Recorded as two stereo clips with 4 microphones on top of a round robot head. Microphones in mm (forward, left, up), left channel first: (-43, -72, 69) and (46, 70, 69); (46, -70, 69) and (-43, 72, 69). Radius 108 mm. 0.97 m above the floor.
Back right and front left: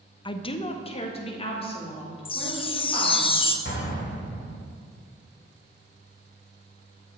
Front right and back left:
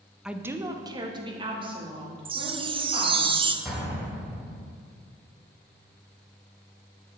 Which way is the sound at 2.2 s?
Straight behind.